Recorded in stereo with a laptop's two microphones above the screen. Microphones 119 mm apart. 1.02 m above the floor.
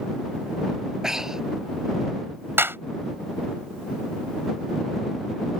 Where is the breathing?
5° right (ahead or behind).